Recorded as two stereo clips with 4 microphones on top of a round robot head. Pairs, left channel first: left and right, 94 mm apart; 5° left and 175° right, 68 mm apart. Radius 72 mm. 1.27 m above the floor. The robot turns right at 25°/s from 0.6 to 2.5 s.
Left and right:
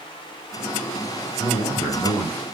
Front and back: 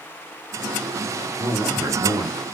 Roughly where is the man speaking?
Behind left.